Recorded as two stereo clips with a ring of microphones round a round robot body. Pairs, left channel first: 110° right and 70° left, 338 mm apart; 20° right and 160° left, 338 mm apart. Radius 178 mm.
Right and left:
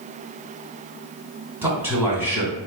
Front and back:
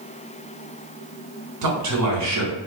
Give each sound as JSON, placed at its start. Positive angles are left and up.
{"t": 1.6, "sound": "a man speaking", "azimuth_deg": 150, "distance_m": 1.2}